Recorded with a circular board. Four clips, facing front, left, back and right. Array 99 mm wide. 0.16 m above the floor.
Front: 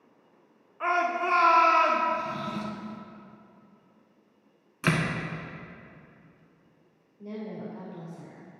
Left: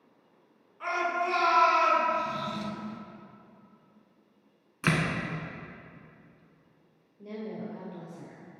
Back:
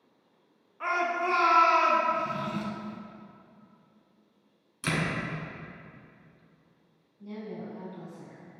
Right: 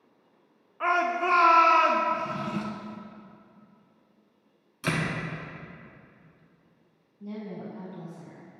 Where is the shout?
75° right, 1.4 m.